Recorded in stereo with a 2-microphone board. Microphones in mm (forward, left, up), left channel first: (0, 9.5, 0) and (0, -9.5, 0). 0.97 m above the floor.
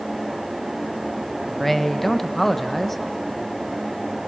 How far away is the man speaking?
About 0.9 m.